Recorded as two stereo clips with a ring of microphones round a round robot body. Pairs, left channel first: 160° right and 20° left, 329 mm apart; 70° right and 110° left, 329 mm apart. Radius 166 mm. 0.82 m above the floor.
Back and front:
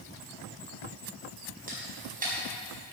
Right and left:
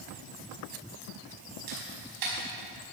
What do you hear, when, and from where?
1.7 s a camera shutter: 90° left, 5 m